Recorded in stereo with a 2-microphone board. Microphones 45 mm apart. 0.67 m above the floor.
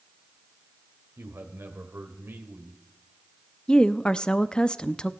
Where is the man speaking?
60° right (ahead or behind), 2 m.